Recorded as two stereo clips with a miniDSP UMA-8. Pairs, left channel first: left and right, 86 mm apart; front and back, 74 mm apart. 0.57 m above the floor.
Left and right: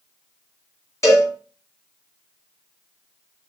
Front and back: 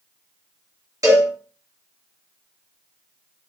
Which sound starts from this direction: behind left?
A cowbell, at 1.0 s.